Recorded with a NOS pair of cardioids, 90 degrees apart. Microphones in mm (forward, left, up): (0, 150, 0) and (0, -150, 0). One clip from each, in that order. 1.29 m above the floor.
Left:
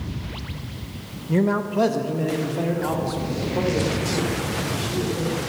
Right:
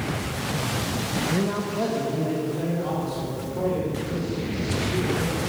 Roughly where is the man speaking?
Ahead left.